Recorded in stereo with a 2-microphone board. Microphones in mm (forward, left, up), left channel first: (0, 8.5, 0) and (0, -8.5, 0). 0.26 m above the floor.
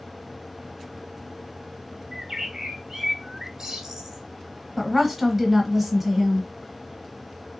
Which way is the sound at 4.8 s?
10° right (ahead or behind).